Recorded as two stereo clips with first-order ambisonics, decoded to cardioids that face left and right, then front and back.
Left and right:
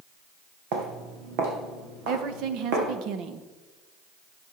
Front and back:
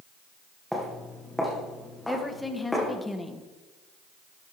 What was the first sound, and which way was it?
Footsteps, 90° right.